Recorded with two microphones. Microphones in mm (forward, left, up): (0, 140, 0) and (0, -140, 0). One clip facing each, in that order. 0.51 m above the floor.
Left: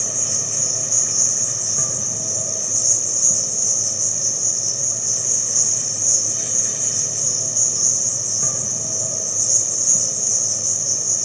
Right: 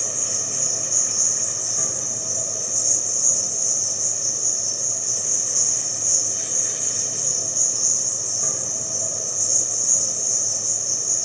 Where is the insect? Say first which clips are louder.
Left 2 dB; 80° left, 0.7 m.